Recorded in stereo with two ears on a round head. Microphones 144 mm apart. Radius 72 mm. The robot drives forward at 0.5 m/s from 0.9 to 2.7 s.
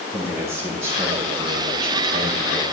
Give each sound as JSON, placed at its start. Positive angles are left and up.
{"t": 0.1, "sound": "a man speaking", "side_deg": -15, "distance_m": 5.0}